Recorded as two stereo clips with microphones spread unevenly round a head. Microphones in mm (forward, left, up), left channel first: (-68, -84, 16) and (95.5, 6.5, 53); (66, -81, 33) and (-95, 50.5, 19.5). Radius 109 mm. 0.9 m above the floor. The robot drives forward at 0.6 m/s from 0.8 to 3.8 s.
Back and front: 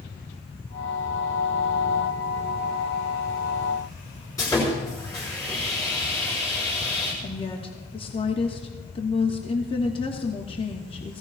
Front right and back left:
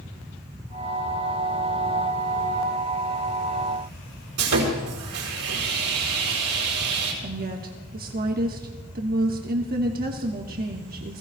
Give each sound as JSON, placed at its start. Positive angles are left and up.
{"t": 4.4, "sound": "sawing", "azimuth_deg": 130, "distance_m": 4.5}
{"t": 7.2, "sound": "a woman speaking", "azimuth_deg": 165, "distance_m": 1.3}